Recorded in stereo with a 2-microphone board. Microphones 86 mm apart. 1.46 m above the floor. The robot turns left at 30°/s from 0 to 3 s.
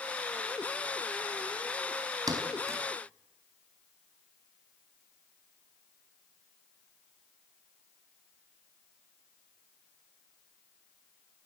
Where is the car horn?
No car horn in this recording.